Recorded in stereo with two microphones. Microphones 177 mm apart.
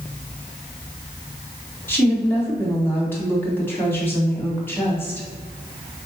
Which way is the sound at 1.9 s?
10° left (ahead or behind).